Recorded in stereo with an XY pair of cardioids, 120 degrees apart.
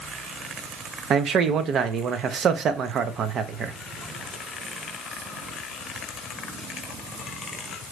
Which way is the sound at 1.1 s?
55° right.